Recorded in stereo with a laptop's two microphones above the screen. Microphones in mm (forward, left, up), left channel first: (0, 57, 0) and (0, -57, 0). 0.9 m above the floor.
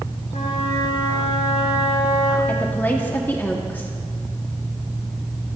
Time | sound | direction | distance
0.3 | a flute | 80° left | 4 m
2.5 | a woman speaking | 15° left (ahead or behind) | 1.9 m